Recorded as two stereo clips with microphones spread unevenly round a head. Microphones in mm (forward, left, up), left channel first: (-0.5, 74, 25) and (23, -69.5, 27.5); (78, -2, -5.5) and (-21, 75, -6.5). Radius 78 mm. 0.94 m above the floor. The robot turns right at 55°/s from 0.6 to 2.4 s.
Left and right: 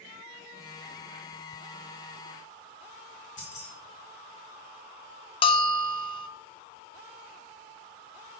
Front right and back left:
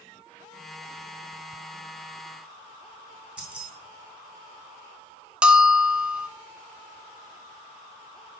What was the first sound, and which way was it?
Keys jangling, 65° left.